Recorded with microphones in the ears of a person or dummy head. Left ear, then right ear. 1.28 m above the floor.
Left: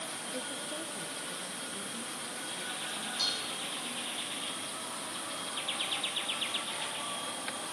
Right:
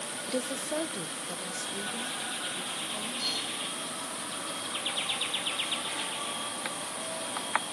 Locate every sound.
0.3 s a woman speaking: 65° right (ahead or behind), 0.5 m; by 3.1 s 40° right (ahead or behind), 1.7 m
3.2 s dishes clattering: 35° left (ahead or behind), 8 m